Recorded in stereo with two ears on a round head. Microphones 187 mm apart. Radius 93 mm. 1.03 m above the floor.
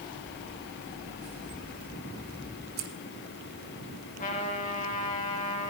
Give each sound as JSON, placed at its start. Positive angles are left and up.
{"t": 2.8, "sound": "scissors", "side_deg": -70, "distance_m": 2.5}
{"t": 4.2, "sound": "a trumpet", "side_deg": 40, "distance_m": 4.5}